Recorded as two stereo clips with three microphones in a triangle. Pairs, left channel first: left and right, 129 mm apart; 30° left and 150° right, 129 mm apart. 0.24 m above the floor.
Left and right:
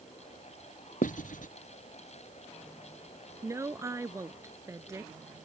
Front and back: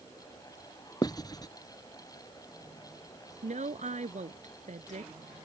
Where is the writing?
90° left.